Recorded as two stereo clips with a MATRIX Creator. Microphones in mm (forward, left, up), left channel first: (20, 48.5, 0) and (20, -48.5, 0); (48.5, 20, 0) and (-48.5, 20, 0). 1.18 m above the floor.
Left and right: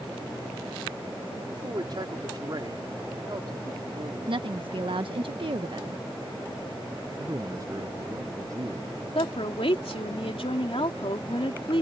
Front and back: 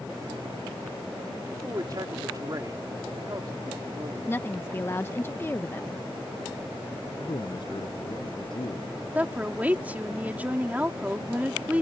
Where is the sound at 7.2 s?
35° right.